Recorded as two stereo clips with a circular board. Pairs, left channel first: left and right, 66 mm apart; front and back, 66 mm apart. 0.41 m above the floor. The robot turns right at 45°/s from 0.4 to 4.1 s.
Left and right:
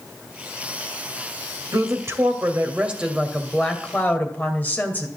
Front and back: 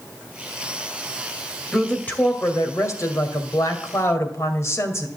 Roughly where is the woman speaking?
Right.